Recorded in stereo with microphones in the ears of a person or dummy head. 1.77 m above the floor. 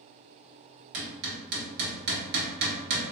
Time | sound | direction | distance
0.9 | hammering | 65° right (ahead or behind) | 1.2 m